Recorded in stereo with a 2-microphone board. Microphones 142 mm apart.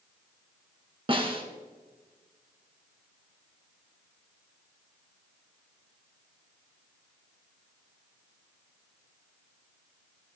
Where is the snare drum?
40° right (ahead or behind), 1.9 m.